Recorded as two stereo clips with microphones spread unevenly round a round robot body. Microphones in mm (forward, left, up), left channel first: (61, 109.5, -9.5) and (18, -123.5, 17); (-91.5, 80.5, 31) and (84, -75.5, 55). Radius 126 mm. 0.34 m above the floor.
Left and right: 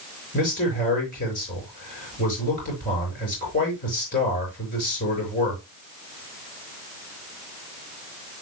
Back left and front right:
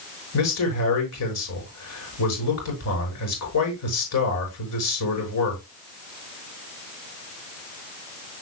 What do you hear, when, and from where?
0.3 s a man speaking: 140° left, 5.5 m